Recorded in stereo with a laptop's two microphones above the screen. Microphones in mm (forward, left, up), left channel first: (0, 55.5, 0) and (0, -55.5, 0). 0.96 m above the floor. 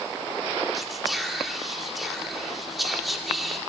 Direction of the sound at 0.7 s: Centre (ahead or behind).